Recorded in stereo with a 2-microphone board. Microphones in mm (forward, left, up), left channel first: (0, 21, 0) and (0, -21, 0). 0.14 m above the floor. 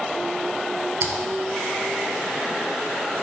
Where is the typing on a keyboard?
55° right (ahead or behind), 1.0 m.